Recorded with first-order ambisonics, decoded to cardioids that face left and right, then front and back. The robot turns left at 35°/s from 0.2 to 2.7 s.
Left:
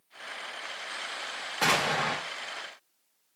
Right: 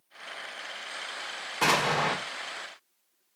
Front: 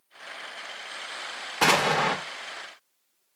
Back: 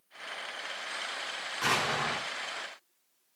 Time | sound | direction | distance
1.6 | an explosion | 10° right | 0.7 m